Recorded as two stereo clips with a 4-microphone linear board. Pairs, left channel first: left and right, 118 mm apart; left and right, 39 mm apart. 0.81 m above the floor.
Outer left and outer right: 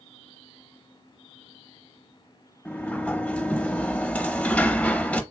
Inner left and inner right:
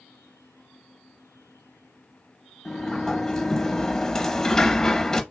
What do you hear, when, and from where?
2.6 s a sliding door: 10° left (ahead or behind), 0.8 m